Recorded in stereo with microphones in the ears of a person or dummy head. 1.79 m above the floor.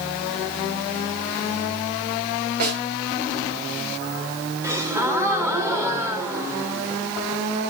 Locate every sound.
2.6 s a snare drum: 55° right (ahead or behind), 5 m
4.6 s a gasp: 5° right (ahead or behind), 2.0 m